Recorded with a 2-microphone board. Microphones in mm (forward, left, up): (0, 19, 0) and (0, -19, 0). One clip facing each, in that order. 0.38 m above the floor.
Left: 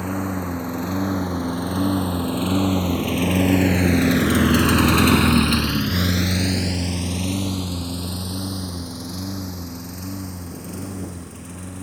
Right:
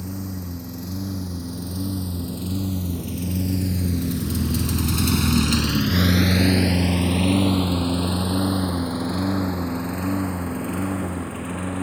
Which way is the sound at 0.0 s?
50° left (ahead or behind).